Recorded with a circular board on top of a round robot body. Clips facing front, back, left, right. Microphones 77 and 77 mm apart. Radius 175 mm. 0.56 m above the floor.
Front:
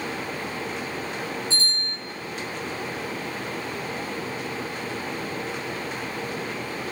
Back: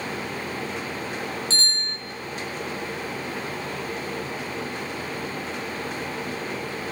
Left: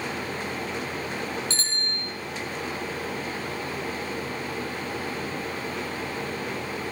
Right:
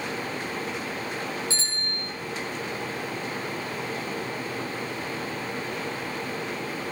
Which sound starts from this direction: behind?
A bicycle bell, at 1.5 s.